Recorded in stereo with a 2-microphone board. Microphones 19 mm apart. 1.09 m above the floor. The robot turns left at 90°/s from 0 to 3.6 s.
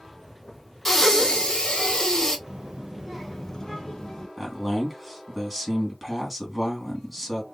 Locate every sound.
0.8 s breathing: 170° left, 1.3 m; by 2.4 s 35° left, 1.3 m
2.5 s a child speaking: 100° right, 1.1 m; by 4.3 s 155° left, 1.1 m
4.4 s a man speaking: 5° right (ahead or behind), 2 m